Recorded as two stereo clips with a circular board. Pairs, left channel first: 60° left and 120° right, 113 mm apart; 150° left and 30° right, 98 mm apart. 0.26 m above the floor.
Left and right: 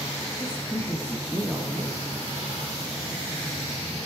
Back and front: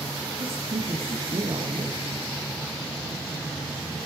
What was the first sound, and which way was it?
A woman speaking, 10° right.